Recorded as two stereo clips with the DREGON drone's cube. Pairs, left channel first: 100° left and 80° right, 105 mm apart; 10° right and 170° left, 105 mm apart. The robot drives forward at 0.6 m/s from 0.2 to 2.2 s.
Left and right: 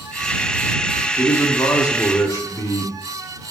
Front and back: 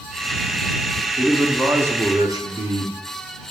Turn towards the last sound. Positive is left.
turn(degrees=140)